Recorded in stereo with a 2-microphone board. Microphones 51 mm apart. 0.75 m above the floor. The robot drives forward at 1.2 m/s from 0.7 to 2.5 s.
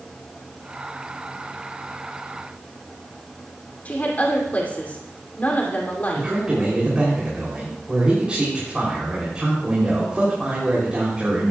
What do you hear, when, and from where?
3.9 s a woman speaking: 35° left (ahead or behind), 2.5 m
6.2 s a man speaking: 20° right (ahead or behind), 3 m